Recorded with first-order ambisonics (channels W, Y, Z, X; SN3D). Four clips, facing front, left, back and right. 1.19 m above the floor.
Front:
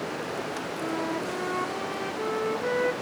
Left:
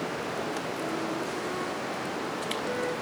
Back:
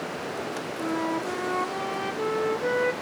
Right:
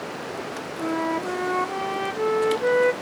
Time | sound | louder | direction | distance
0.8 | a flute | right 11 dB, back 3 dB | 100° right | 0.9 m